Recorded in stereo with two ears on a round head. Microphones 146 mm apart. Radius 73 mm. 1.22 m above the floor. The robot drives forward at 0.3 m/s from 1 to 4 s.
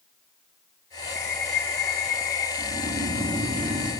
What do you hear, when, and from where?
1.2 s a bird: 80° left, 4 m; by 2.5 s 85° left, 4 m
2.6 s snoring: 45° right (ahead or behind), 2.5 m; by 3.9 s 40° right (ahead or behind), 3 m